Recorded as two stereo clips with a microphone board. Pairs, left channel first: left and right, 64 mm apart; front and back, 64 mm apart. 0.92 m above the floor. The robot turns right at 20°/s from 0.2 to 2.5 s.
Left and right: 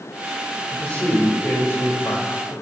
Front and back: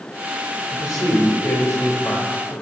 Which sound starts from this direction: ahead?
A man speaking, at 0.7 s.